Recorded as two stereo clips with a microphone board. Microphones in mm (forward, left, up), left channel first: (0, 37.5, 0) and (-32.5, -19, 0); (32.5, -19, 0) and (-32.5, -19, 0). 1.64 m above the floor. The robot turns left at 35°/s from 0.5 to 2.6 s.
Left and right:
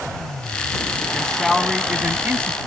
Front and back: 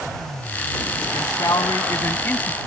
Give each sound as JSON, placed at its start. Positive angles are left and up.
{"t": 1.1, "sound": "a man speaking", "azimuth_deg": -20}